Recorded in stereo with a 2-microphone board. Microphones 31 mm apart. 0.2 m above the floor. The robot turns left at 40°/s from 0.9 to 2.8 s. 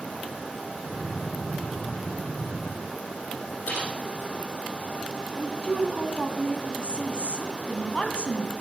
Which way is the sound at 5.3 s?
35° left (ahead or behind).